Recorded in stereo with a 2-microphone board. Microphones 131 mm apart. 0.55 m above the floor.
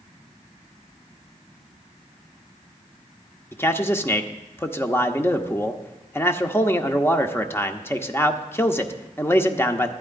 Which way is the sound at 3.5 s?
20° left (ahead or behind).